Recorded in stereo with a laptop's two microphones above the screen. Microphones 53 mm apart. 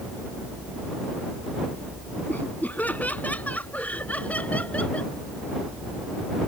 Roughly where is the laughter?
Left.